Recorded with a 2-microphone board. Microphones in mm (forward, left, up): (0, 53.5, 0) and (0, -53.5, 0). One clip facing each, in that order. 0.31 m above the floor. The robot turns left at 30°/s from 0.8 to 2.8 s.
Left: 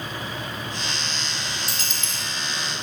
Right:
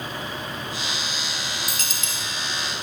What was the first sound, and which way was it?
A dropped coin, 45° right (ahead or behind).